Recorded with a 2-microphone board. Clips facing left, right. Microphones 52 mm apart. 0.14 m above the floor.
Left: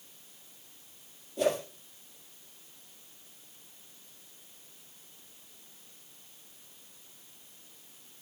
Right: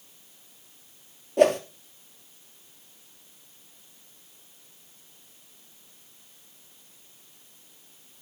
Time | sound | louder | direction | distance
1.4 | a whoosh | right 9 dB | 60° right (ahead or behind) | 1.6 m